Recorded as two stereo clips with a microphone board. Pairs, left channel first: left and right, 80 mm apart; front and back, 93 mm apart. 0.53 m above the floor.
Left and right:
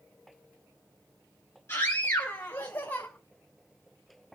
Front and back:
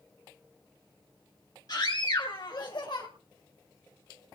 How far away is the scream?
About 3 m.